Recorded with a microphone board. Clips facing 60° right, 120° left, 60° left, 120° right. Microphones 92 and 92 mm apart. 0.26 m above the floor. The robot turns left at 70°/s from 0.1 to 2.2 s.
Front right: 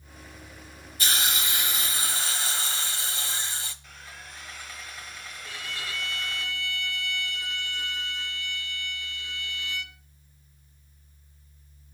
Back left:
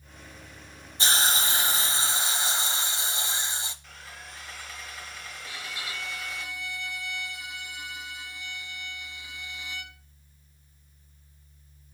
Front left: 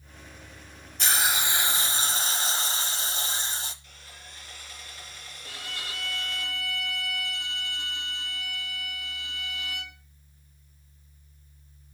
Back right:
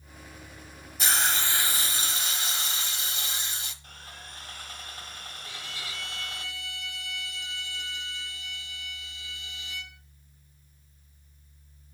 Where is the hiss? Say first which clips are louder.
Back left 3 dB, front left 1 dB; 155° left, 1.3 m; by 3.7 s 70° left, 1.3 m.